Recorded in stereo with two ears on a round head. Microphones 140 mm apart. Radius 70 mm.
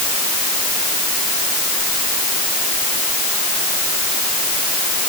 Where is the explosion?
No explosion in this recording.